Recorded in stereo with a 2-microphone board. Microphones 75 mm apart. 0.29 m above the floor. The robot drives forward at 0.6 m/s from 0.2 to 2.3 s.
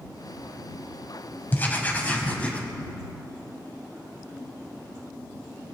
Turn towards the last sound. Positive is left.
turn(degrees=20)  # may be behind; listen again after turning